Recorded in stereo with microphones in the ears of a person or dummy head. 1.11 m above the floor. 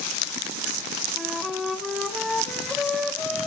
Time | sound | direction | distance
1.2 | a flute | centre (ahead or behind) | 0.8 m